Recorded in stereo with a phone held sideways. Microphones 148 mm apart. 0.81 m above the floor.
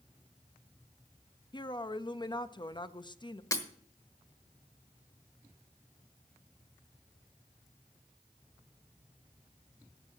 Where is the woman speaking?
35° left (ahead or behind), 0.5 m.